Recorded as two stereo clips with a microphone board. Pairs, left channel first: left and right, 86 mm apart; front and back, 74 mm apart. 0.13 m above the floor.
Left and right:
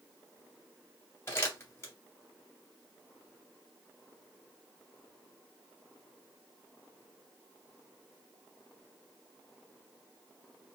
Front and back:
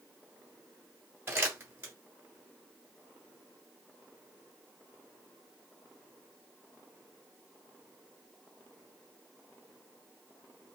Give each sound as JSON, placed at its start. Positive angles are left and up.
{"t": 1.3, "sound": "crumpling", "azimuth_deg": 135, "distance_m": 1.8}